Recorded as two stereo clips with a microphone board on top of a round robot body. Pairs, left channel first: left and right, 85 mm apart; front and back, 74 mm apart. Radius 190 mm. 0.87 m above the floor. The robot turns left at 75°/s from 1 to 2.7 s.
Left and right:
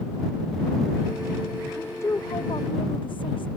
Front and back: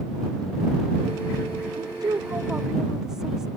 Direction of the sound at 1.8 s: 170° left.